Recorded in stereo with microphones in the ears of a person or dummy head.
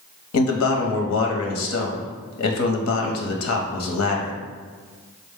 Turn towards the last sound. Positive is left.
turn(degrees=65)  # may be behind; listen again after turning